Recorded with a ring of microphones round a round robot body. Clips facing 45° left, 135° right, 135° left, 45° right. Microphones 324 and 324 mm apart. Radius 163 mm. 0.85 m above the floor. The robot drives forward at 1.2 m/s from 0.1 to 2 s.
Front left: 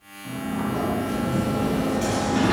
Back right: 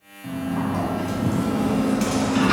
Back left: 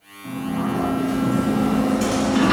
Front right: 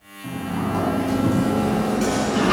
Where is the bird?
No bird in this recording.